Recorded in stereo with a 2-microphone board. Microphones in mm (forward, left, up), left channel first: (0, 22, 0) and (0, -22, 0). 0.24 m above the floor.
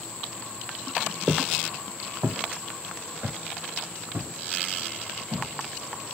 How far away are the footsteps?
About 0.8 m.